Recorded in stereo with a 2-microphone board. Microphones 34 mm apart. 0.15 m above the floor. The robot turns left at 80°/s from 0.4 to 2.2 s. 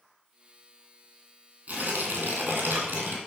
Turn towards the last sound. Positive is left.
turn(degrees=-100)